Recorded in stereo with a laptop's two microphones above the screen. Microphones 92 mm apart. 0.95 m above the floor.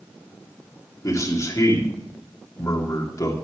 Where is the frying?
I don't hear frying.